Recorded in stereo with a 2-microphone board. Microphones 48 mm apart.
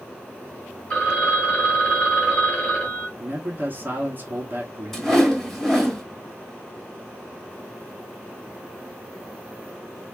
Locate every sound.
0.9 s a phone ringing: 25° left (ahead or behind), 2.5 m
3.2 s a man speaking: 45° right (ahead or behind), 1.6 m
4.9 s a whoosh: 5° left (ahead or behind), 1.8 m